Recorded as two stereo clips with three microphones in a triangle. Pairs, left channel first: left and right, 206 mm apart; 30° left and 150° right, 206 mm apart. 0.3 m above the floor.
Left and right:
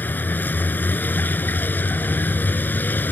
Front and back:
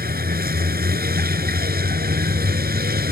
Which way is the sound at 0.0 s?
170° left.